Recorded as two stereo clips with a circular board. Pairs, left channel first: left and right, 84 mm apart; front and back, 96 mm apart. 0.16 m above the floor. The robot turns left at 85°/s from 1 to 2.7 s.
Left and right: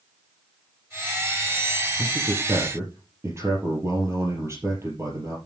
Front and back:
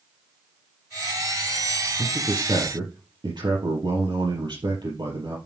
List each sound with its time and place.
2.0 s a man speaking: 85° right, 4.5 m; by 5.4 s 145° right, 4.5 m